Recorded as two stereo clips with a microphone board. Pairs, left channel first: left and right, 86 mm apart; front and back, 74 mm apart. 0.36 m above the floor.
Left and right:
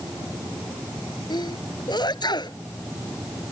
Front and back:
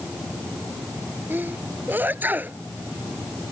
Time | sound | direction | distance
1.3 | a sneeze | 115° left | ?